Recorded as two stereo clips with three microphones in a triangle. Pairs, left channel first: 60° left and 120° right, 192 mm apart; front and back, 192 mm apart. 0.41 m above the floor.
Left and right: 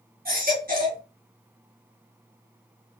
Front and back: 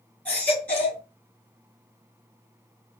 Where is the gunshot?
No gunshot in this recording.